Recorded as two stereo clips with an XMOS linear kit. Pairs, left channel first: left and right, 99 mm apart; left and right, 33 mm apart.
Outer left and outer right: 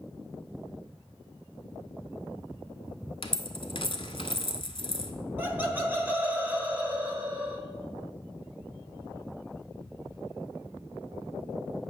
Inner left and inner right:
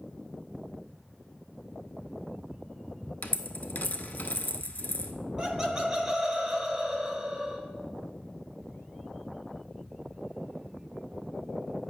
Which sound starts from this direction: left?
A dropped coin, at 3.2 s.